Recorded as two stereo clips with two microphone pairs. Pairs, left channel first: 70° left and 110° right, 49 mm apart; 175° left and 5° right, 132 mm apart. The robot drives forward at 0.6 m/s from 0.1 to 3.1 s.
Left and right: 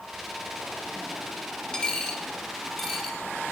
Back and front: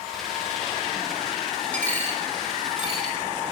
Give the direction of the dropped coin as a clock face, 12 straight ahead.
8 o'clock.